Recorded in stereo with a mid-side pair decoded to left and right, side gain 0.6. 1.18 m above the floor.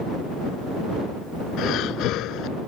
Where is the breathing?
65° left.